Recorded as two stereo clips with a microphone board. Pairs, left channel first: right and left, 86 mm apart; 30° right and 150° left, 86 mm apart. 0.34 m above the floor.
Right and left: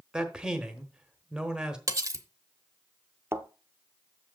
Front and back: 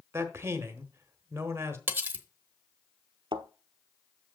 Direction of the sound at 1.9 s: 100° left.